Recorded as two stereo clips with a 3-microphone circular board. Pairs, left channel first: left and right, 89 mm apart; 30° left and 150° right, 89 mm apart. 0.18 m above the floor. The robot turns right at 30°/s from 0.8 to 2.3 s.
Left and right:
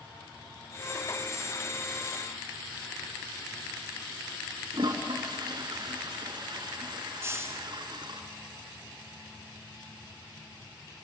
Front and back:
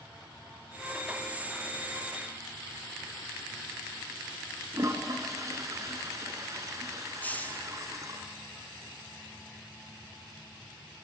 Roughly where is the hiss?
Ahead right.